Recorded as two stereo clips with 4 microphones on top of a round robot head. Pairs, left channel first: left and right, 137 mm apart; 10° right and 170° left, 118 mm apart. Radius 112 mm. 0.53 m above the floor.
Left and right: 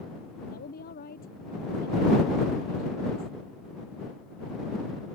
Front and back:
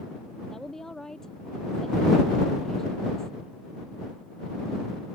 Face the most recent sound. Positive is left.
turn(degrees=75)